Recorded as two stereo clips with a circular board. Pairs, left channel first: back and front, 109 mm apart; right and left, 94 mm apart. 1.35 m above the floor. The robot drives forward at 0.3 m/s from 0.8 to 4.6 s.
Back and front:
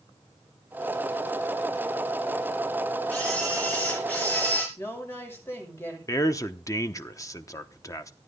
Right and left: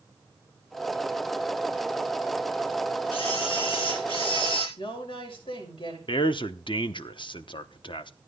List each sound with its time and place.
3.1 s a camera shutter: 105° right, 5 m; by 4.7 s 110° right, 5 m
4.8 s a woman speaking: 115° right, 5.5 m
6.1 s a man speaking: 120° right, 0.9 m